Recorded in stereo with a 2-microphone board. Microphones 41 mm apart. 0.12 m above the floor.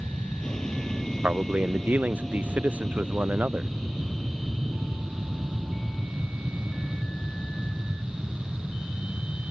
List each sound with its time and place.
0.0 s an aircraft: 20° left (ahead or behind); by 9.5 s 5° right (ahead or behind)
1.2 s a man speaking: 40° right (ahead or behind)